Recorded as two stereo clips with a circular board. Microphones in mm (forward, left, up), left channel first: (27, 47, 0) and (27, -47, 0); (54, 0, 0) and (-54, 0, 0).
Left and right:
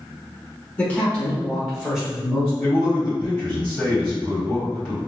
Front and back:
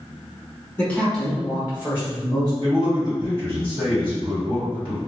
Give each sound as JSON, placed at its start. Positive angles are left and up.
{"t": 0.8, "sound": "a man speaking", "azimuth_deg": 45, "distance_m": 1.2}
{"t": 2.6, "sound": "a man speaking", "azimuth_deg": 170, "distance_m": 1.9}